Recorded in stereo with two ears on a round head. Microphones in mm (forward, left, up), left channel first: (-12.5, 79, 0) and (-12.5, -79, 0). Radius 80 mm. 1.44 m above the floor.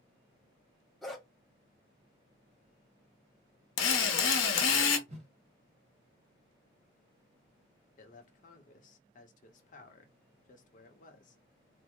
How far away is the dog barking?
About 0.8 m.